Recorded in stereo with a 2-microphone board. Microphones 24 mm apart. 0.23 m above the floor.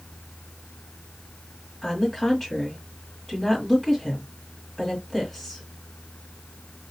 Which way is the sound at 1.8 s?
10° left (ahead or behind).